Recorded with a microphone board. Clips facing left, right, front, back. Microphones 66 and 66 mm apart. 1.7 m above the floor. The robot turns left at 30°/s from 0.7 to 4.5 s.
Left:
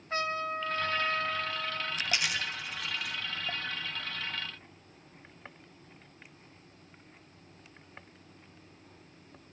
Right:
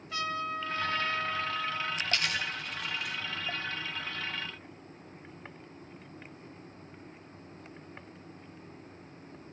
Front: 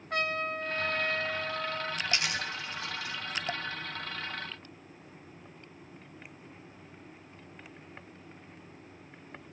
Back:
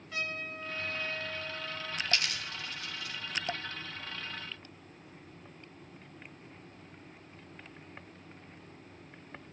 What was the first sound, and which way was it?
A trumpet, 35° left.